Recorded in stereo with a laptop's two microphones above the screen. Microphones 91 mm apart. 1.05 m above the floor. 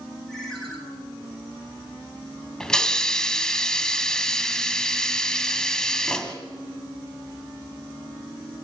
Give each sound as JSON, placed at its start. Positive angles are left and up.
{"t": 0.3, "sound": "a ringtone", "side_deg": 5, "distance_m": 4.0}
{"t": 2.6, "sound": "a hiss", "side_deg": 10, "distance_m": 1.9}